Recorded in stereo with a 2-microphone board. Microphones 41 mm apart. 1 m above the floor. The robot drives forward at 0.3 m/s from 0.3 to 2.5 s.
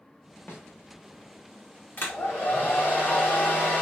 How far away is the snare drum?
About 1.1 m.